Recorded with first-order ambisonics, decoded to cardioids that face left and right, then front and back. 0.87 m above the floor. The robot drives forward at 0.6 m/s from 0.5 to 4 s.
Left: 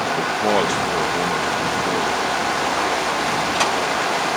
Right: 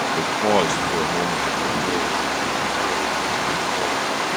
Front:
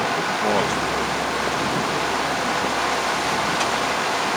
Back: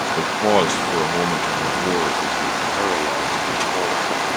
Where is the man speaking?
165° right; by 4.4 s straight behind.